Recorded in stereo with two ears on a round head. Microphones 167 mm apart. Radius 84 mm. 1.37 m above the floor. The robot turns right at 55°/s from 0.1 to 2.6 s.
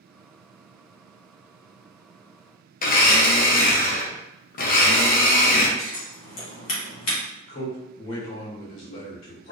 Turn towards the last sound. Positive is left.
turn(degrees=80)